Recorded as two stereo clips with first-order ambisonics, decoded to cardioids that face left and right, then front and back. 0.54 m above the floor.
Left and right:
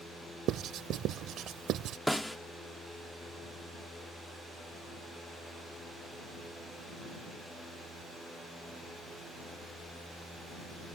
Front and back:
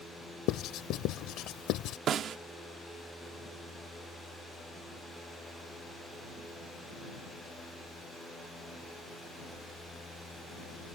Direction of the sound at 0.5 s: 45° right.